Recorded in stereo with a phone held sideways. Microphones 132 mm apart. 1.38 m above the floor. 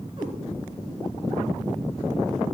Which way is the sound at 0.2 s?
35° right (ahead or behind).